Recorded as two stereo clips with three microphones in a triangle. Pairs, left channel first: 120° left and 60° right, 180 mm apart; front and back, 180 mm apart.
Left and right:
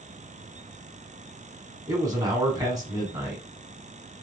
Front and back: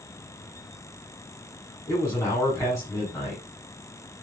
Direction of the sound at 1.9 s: 35° right.